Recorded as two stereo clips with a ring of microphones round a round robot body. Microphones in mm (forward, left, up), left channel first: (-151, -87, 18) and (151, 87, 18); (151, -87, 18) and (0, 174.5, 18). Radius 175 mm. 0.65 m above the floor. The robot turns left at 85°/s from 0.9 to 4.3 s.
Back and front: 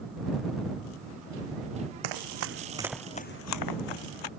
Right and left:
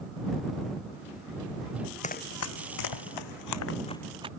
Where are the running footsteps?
10° left; by 4.3 s 165° right.